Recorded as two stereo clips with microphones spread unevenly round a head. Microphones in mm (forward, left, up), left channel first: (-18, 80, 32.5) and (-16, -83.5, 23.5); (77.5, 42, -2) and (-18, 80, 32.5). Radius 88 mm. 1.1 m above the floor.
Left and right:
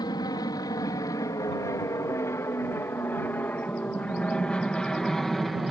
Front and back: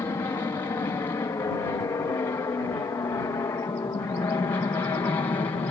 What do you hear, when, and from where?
0.0 s an aircraft: 30° left; by 5.7 s 5° right